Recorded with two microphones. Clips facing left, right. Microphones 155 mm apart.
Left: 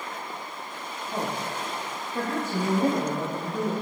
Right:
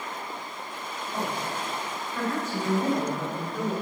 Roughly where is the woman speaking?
Left.